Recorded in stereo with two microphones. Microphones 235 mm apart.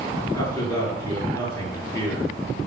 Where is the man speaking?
10° left (ahead or behind), 6.5 m.